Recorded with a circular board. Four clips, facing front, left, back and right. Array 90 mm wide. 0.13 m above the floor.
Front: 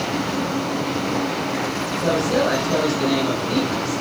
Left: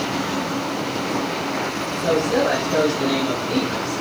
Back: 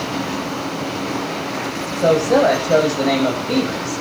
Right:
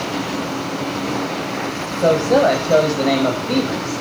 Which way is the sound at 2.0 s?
135° right.